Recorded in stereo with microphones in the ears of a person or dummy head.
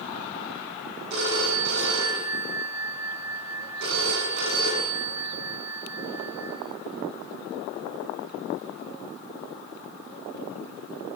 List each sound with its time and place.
1.1 s a phone ringing: 60° right (ahead or behind), 8.5 m